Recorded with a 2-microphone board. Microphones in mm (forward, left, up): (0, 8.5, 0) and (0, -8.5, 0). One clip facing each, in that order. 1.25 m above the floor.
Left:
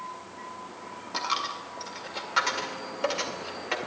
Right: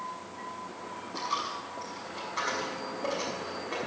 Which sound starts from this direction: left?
A dropped coin, at 1.1 s.